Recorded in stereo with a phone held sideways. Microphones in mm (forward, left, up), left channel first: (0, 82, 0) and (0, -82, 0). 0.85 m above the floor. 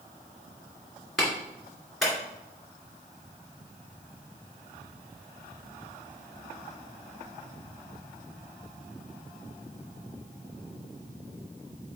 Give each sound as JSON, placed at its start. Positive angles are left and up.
{"t": 1.2, "sound": "a clap", "side_deg": 0, "distance_m": 2.0}